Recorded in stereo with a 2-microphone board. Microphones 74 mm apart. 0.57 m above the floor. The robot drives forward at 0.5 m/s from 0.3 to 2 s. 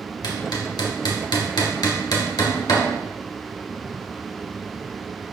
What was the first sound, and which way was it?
Hammering, 65° left (ahead or behind).